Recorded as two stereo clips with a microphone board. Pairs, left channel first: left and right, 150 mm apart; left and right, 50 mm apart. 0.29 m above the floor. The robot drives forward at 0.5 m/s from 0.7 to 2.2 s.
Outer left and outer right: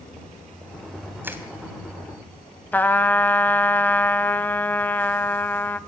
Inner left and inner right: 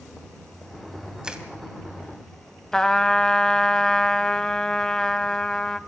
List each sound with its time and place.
1.2 s crushing: 15° right (ahead or behind), 2.0 m
2.7 s a trumpet: 10° left (ahead or behind), 0.8 m